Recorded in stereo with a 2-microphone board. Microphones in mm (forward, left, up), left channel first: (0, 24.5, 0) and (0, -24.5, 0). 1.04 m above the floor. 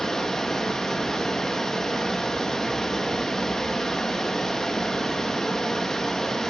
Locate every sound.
0.0 s running water: 10° left (ahead or behind), 0.9 m